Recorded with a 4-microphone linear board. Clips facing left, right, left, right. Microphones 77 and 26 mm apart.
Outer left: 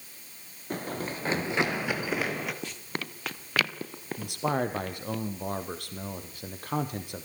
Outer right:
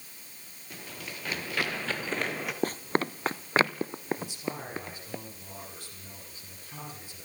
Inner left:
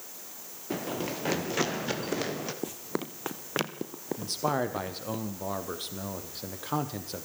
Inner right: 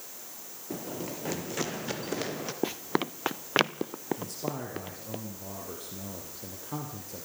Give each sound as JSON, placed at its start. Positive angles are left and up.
{"t": 0.7, "sound": "running footsteps", "side_deg": 45, "distance_m": 3.0}
{"t": 2.6, "sound": "running footsteps", "side_deg": -45, "distance_m": 0.6}
{"t": 4.2, "sound": "a man speaking", "side_deg": 65, "distance_m": 4.0}